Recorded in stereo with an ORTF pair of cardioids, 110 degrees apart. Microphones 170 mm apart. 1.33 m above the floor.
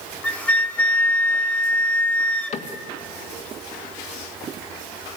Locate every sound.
0.2 s a flute: 10° left, 1.5 m
2.5 s a cupboard door: 45° left, 1.8 m